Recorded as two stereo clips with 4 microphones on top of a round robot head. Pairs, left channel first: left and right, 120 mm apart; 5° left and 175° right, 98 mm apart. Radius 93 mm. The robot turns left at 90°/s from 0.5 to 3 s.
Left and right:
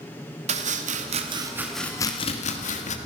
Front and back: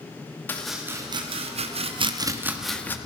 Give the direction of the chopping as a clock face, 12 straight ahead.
2 o'clock.